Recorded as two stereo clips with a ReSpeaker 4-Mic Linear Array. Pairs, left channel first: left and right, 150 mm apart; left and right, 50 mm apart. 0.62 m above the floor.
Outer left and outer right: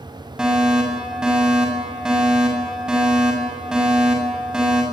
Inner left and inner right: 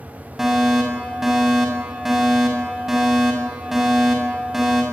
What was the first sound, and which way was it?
A fire alarm, 5° right (ahead or behind).